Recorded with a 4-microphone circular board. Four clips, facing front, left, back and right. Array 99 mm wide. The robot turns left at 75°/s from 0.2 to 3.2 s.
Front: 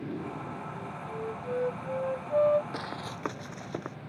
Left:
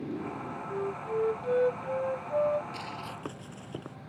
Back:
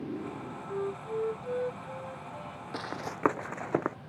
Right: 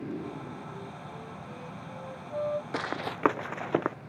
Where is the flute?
145° left; by 2.6 s straight ahead.